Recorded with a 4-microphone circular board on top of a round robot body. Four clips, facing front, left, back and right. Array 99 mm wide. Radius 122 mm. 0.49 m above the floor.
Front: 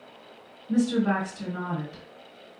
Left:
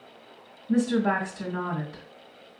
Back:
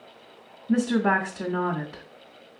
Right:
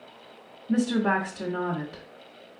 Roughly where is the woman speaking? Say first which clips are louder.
Even, back 2 dB; behind.